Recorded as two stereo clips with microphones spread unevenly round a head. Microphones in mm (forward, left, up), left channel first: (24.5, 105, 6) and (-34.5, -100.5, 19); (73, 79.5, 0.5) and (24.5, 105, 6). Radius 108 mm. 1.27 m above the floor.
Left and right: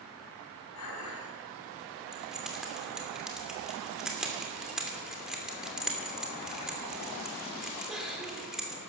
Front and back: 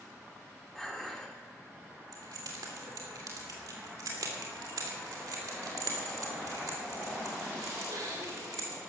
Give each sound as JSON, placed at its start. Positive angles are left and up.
{"t": 0.8, "sound": "dishes clattering", "azimuth_deg": 60, "distance_m": 6.0}
{"t": 2.1, "sound": "keys jangling", "azimuth_deg": 170, "distance_m": 2.5}